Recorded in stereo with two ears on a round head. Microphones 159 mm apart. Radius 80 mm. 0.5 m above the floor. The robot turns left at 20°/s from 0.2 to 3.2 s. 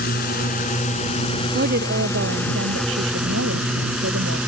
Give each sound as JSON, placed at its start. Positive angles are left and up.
{"t": 0.0, "sound": "a drone", "azimuth_deg": 55}
{"t": 1.5, "sound": "a woman speaking", "azimuth_deg": -55}